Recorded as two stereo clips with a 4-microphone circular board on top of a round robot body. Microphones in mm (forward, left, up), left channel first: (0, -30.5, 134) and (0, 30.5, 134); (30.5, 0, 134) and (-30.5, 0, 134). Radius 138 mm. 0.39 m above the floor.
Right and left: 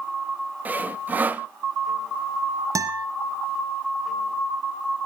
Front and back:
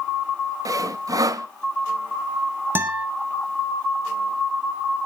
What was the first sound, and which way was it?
Sawing, 155° left.